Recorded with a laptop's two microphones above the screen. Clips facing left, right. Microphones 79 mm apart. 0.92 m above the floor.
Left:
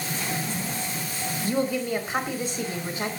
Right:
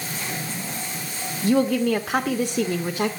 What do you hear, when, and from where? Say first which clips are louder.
1.4 s a woman speaking: right 7 dB; 80° right, 2 m